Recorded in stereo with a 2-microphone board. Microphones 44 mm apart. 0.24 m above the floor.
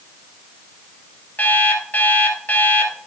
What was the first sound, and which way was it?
An alarm clock, 35° left (ahead or behind).